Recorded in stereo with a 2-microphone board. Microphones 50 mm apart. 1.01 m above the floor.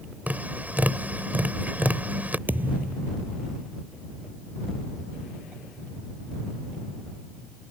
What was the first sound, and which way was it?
Tapping, 35° right (ahead or behind).